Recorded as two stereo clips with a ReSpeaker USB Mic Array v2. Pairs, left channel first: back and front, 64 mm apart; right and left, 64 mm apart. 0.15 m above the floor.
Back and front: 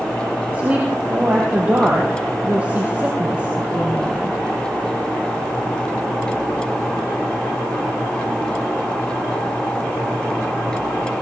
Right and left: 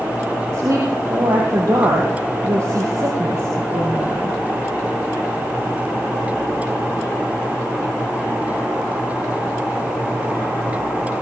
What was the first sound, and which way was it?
A woman speaking, 65° left.